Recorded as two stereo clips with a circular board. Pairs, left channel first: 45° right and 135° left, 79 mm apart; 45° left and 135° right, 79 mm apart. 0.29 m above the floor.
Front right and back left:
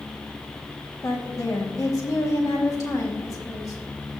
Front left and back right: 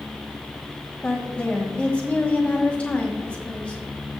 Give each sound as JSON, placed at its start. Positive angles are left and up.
{"t": 1.0, "sound": "a woman speaking", "azimuth_deg": -25, "distance_m": 2.0}